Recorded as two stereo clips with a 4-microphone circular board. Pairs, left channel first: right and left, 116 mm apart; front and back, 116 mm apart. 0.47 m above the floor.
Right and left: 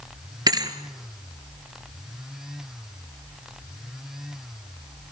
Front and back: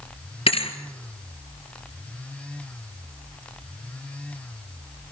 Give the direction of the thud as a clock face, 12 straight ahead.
11 o'clock.